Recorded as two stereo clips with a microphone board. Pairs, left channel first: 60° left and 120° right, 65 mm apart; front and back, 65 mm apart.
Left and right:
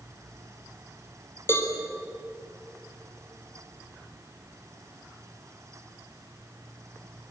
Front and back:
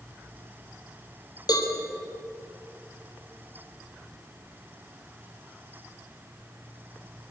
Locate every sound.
1.5 s a cowbell: 10° left, 3.5 m